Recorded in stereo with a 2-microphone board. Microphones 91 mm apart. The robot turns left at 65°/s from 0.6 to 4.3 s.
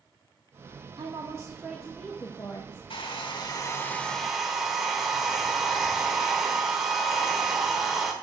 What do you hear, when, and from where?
1.0 s a woman speaking: 120° right, 1.1 m; by 2.8 s 120° left, 1.1 m
2.9 s a hair dryer: 85° left, 1.3 m; by 8.1 s 5° right, 1.3 m